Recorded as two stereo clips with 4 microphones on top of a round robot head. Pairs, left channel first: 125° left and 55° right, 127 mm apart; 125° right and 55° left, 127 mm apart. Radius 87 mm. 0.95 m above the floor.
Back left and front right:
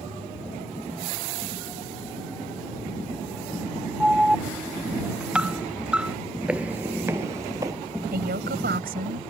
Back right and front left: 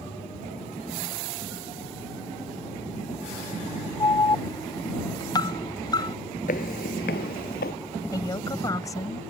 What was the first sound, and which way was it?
An alarm, 130° right.